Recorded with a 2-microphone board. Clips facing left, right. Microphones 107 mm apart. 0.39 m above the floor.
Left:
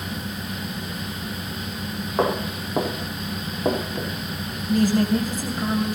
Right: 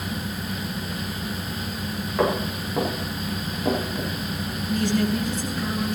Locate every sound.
2.2 s footsteps: 25° left (ahead or behind), 7.5 m; by 4.1 s 40° left (ahead or behind), 7.5 m
4.7 s a woman speaking: 45° left (ahead or behind), 2.5 m